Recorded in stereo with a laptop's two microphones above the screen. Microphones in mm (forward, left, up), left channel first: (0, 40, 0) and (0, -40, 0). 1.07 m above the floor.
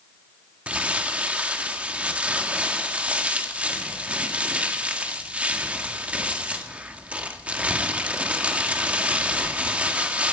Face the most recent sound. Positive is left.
turn(degrees=-20)  # may be behind; listen again after turning